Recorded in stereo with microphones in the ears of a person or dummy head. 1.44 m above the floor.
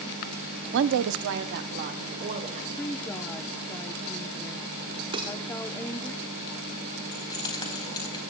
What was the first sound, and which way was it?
A woman speaking, 60° right (ahead or behind).